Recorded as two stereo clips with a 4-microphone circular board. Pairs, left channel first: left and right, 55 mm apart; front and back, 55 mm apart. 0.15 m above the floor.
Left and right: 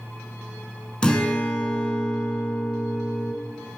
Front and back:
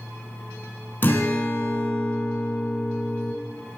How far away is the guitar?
About 1.1 m.